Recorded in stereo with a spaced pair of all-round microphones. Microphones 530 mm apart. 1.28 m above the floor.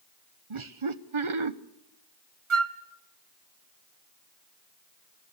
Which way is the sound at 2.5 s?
60° right (ahead or behind).